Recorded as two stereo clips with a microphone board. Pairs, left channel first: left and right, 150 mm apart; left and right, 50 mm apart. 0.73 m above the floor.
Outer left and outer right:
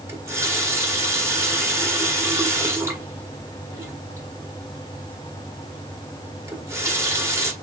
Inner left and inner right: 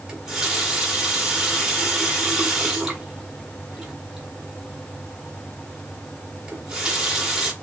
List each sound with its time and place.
0.1 s a running tap: 15° right (ahead or behind), 1.5 m